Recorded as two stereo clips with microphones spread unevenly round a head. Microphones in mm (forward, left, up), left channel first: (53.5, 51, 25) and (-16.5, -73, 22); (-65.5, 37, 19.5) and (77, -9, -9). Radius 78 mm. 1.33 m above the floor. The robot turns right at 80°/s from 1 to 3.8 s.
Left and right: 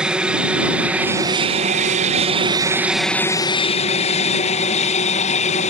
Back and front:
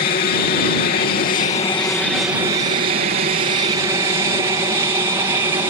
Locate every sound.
0.0 s an aircraft: 155° left; by 5.7 s 45° left